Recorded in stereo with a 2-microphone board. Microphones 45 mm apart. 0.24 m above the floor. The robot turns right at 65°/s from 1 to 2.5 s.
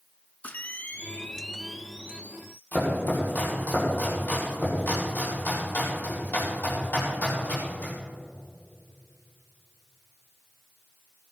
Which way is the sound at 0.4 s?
135° left.